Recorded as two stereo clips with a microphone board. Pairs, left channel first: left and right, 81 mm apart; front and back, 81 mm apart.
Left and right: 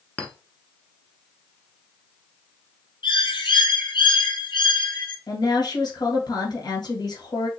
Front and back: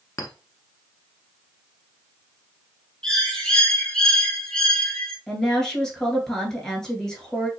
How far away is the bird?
About 1.1 m.